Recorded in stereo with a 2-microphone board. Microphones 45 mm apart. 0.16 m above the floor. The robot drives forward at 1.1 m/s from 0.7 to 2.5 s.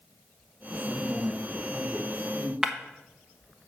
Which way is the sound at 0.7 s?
Centre (ahead or behind).